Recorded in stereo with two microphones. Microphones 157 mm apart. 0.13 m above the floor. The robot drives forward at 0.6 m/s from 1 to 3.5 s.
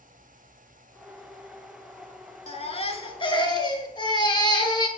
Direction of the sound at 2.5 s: 40° left (ahead or behind).